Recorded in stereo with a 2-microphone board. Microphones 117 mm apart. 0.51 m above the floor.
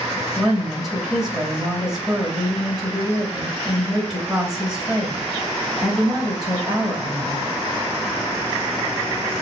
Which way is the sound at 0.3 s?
5° right (ahead or behind).